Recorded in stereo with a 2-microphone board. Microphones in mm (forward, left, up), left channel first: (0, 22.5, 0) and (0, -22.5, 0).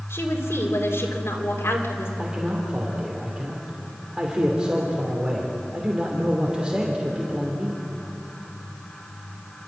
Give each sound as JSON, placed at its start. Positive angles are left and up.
{"t": 0.1, "sound": "a woman speaking", "side_deg": 65, "distance_m": 3.5}
{"t": 2.2, "sound": "a man speaking", "side_deg": -20, "distance_m": 2.5}